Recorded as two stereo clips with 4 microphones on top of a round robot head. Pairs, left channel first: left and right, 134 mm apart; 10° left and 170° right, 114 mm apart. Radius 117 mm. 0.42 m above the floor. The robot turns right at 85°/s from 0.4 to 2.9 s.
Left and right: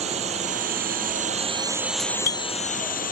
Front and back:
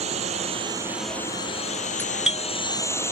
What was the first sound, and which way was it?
A drone, 135° right.